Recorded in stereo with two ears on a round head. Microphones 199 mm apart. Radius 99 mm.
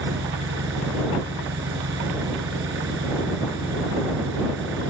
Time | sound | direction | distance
0.0 | an engine running | 60° right (ahead or behind) | ?